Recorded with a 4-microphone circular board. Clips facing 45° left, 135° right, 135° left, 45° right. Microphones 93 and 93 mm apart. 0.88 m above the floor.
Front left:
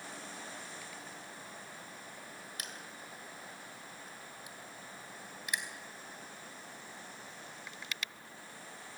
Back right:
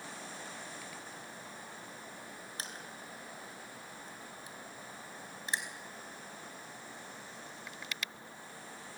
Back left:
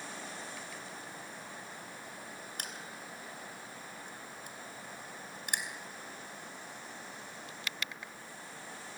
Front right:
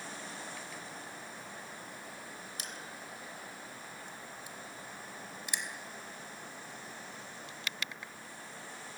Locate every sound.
2.6 s crushing: 170° left, 2.5 m